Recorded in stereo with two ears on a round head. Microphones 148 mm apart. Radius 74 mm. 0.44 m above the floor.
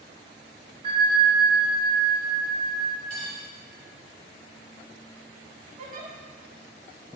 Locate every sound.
0.8 s a bell: 35° right (ahead or behind), 0.8 m
3.1 s cutlery clinking: 40° left (ahead or behind), 1.4 m
5.8 s a giggle: 50° right (ahead or behind), 0.6 m